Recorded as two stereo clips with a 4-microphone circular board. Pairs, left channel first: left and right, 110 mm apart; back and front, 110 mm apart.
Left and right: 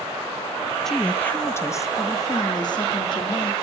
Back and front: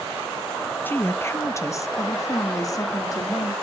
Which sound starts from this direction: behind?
A woman speaking, at 0.8 s.